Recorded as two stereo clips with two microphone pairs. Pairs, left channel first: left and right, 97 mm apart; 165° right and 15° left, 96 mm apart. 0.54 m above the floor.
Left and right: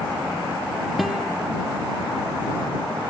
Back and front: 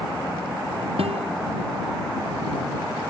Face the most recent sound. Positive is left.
turn(degrees=0)